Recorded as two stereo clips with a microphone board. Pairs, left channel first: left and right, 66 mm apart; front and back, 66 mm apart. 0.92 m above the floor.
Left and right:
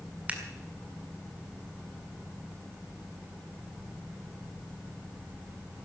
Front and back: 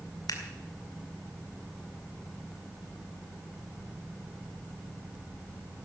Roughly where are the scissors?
Ahead.